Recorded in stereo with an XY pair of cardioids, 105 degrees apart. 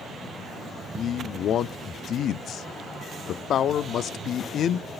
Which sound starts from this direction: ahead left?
A man speaking, at 0.9 s.